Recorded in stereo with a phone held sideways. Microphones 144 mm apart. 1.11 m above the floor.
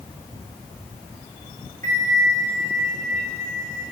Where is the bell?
70° right (ahead or behind), 3.5 m.